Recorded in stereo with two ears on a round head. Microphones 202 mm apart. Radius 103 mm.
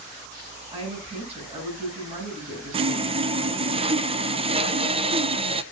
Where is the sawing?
25° right (ahead or behind), 0.8 m.